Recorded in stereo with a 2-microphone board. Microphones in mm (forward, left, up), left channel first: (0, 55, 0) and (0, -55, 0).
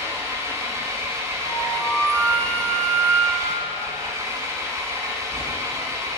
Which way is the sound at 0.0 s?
25° right (ahead or behind).